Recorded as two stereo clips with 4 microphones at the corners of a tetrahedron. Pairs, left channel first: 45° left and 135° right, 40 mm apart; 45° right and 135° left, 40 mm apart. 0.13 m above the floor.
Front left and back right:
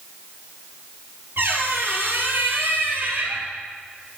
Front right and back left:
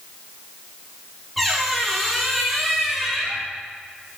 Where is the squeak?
135° right, 1.3 m.